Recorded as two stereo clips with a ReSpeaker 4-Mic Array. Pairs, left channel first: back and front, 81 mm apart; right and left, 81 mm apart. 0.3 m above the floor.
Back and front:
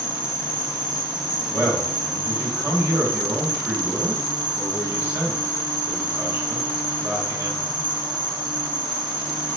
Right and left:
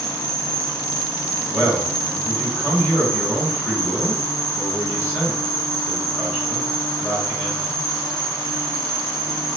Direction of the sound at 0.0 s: 5° right.